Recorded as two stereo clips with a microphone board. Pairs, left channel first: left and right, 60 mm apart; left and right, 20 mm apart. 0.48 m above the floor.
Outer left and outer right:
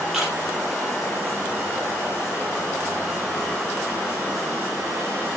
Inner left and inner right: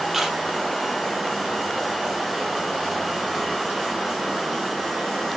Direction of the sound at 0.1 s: 5° right (ahead or behind).